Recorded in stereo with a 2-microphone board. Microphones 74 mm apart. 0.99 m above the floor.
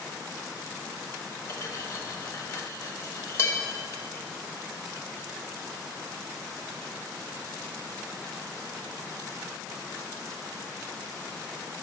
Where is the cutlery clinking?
35° left (ahead or behind), 1.2 m.